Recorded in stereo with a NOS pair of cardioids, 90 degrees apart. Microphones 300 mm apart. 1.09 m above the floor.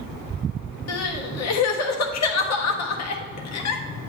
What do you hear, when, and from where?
0.9 s crying: 60° left, 1.1 m